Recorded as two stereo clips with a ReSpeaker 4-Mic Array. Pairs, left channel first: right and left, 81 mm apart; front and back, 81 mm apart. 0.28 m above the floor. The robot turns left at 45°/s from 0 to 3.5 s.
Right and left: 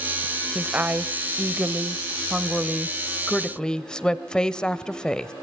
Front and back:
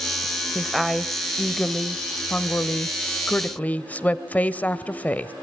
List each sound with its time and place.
0.6 s a woman speaking: 105° left, 1.1 m; by 5.3 s 25° right, 1.1 m